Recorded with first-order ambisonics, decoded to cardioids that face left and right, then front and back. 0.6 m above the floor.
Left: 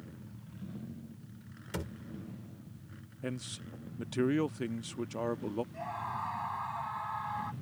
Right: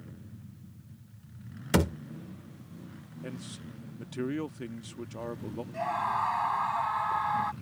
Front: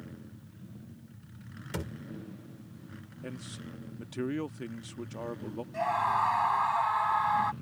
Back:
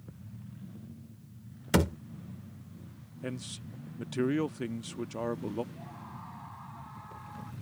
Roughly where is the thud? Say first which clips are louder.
Right 14 dB, back 12 dB; behind right.